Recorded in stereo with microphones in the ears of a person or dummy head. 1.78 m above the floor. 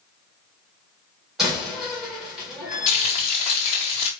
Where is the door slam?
Centre (ahead or behind), 2.0 m.